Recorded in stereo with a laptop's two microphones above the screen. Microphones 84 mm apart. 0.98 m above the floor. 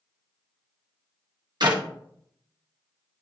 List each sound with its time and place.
1.6 s a clap: 55° right (ahead or behind), 1.5 m